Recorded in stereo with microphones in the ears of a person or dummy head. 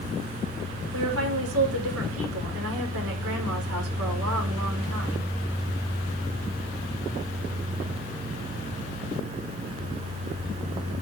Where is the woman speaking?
80° right, 5 m.